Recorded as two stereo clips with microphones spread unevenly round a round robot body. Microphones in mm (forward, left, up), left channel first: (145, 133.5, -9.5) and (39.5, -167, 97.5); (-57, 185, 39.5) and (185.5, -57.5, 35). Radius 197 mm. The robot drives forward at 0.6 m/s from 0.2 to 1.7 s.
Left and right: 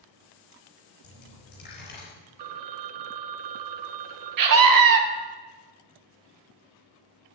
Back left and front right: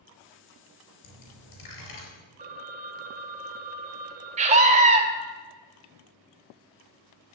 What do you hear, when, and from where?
1.0 s a dropped coin: 105° left, 4.5 m; by 2.1 s 110° left, 4.5 m
2.4 s a phone ringing: 110° right, 0.9 m
4.4 s a scream: 105° right, 1.5 m